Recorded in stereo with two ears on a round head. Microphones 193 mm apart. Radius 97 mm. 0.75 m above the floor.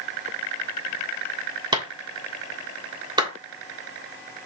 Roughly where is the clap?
Centre.